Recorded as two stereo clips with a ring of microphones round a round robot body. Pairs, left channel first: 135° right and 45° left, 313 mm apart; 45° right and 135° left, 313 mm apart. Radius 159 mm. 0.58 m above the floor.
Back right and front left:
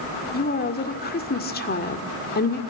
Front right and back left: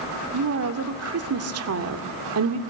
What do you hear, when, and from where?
0.3 s a woman speaking: 170° left, 2.0 m